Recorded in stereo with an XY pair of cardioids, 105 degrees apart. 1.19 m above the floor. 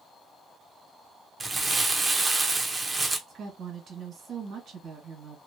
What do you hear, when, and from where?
1.4 s crumpling: 20° right, 0.7 m
3.3 s a woman speaking: 55° right, 1.6 m